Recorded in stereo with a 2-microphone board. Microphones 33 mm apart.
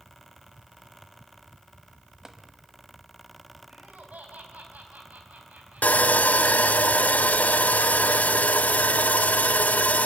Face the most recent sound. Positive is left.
turn(degrees=50)  # may be behind; listen again after turning